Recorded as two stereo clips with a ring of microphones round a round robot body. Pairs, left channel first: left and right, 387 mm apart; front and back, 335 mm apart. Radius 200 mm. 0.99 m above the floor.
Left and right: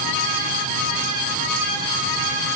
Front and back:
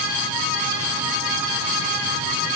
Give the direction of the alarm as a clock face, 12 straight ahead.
No alarm in this recording.